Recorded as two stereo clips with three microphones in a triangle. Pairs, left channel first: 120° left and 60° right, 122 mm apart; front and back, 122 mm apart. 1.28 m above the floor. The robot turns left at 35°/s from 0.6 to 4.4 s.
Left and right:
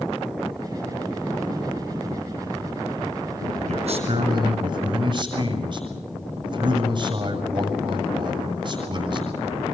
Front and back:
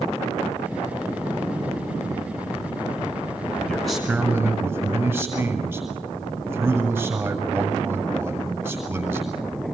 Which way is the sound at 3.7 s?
80° right.